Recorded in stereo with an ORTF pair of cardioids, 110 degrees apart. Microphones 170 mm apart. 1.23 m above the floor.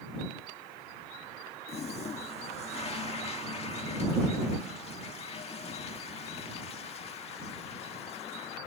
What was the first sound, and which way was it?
A toilet flushing, 40° left.